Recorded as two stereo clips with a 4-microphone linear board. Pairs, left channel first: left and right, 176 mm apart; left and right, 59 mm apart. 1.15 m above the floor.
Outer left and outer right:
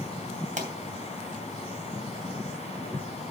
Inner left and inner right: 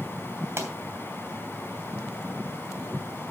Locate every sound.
0.6 s a pop: 45° right (ahead or behind), 2.5 m